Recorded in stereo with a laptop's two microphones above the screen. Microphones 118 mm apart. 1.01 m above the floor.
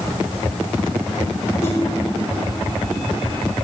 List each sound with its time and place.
1.6 s a whoosh: 25° left (ahead or behind), 3.5 m